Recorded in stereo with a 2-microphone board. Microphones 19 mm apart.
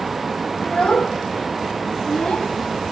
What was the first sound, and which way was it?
A child speaking, 70° left (ahead or behind).